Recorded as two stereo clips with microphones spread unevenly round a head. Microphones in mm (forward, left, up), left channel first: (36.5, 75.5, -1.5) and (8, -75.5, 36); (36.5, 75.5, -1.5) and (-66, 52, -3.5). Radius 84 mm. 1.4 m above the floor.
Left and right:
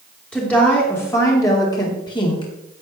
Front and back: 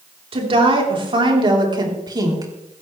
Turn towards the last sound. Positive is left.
turn(degrees=140)